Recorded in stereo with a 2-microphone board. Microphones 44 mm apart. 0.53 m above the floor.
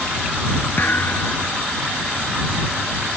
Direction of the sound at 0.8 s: 50° left (ahead or behind).